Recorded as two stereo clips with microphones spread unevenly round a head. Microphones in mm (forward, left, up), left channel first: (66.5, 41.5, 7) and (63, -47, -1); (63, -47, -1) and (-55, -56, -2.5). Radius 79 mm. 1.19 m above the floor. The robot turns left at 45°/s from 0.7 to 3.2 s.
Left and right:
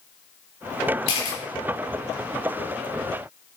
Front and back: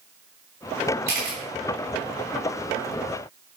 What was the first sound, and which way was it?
A camera shutter, 110° left.